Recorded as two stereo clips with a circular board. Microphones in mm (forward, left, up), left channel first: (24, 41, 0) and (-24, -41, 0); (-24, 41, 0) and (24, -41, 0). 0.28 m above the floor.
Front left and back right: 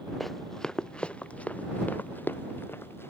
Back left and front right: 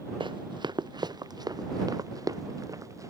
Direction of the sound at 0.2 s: 30° right.